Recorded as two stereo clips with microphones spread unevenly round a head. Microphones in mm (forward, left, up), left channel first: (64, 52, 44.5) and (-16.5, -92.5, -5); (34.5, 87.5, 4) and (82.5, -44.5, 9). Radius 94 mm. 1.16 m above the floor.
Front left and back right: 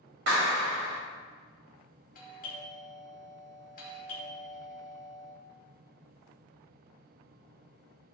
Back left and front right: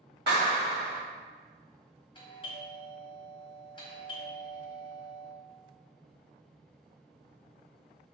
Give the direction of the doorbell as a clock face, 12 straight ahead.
9 o'clock.